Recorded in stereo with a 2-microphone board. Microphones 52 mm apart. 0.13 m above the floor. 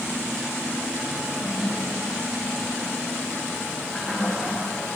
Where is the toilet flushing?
30° left (ahead or behind), 7 m.